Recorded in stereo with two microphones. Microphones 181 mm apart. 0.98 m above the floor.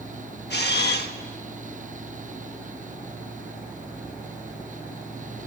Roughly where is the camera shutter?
Left.